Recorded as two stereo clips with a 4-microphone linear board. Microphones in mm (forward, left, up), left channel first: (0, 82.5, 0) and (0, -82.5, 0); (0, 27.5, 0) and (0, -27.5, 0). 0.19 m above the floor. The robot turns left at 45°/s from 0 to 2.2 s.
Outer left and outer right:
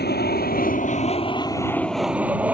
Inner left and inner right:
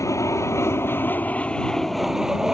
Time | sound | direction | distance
0.0 | an aircraft | 90° left | ?